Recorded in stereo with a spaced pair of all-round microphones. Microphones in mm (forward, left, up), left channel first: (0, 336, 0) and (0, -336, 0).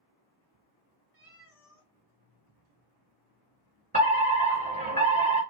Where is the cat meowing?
60° right (ahead or behind), 2.0 m.